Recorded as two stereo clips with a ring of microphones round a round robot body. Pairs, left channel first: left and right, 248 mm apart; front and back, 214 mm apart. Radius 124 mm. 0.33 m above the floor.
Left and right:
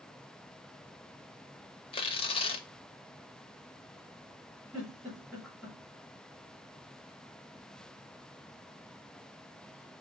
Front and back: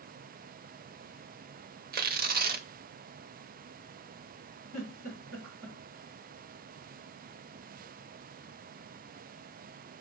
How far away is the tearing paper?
About 0.6 m.